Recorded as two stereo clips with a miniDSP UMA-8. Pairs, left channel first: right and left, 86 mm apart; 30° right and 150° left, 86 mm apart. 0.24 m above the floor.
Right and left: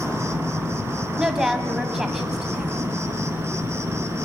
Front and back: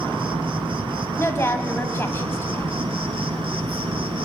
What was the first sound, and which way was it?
An insect, 150° left.